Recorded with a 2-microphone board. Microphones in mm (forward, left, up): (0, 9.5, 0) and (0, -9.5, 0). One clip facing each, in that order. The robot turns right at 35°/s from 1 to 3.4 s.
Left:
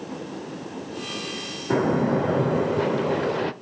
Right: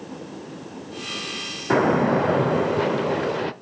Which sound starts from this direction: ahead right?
A splash, at 1.7 s.